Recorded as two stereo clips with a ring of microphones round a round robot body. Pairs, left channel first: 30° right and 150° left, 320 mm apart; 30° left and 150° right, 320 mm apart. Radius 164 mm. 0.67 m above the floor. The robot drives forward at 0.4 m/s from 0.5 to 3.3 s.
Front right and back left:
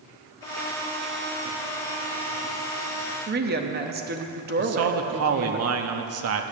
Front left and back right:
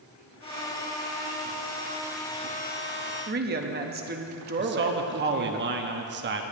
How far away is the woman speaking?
About 1.0 m.